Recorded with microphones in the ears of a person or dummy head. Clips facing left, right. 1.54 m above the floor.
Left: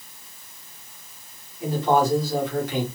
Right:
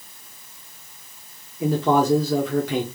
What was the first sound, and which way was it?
A man speaking, 65° right (ahead or behind).